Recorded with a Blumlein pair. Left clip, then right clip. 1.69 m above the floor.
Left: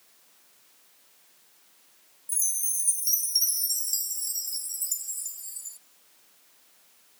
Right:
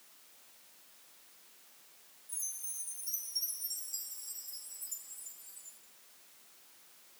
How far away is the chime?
About 0.7 m.